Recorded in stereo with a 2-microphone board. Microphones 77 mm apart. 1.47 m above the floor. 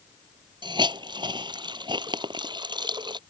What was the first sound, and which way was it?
A hiss, 80° right.